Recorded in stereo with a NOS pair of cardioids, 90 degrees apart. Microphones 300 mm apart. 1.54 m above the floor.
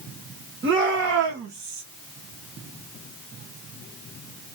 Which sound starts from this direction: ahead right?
A shout, at 0.6 s.